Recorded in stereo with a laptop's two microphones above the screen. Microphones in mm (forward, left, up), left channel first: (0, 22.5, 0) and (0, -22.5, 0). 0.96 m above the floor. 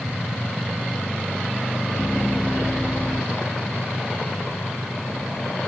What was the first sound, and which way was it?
Laughter, centre (ahead or behind).